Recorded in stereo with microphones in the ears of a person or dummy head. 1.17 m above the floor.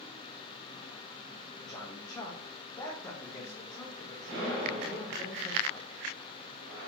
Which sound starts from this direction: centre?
A man speaking, at 1.6 s.